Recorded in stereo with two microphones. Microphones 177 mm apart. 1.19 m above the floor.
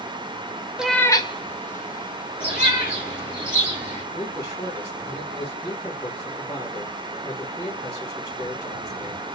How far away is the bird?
About 2 m.